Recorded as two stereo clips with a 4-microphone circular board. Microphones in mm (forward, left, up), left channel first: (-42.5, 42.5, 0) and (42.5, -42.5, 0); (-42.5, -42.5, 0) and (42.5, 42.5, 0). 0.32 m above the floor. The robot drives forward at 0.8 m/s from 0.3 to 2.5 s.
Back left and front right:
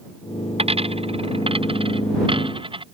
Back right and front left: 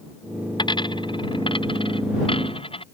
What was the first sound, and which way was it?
A dropped coin, 85° right.